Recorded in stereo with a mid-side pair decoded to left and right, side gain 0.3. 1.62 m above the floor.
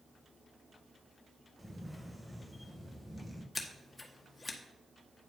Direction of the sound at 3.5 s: 30° left.